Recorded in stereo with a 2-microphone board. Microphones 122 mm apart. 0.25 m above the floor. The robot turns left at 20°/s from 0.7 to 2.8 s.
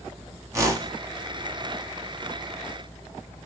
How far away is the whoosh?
About 0.6 m.